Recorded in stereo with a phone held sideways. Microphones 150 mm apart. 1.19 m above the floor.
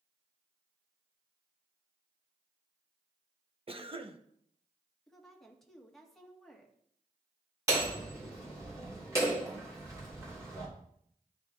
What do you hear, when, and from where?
3.7 s a cough: 40° right (ahead or behind), 0.9 m
5.1 s a woman speaking: centre (ahead or behind), 1.6 m
7.7 s hammering: 20° right (ahead or behind), 3 m